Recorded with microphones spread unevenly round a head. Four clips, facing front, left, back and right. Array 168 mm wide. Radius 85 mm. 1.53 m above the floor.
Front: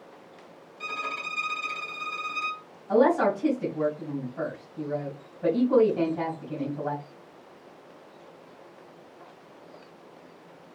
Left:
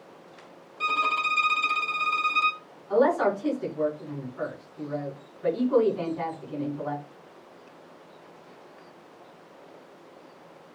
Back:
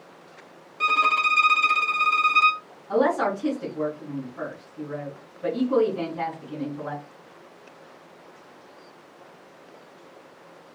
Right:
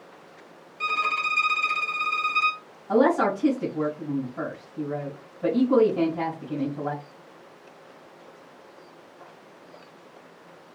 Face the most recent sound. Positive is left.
turn(degrees=-80)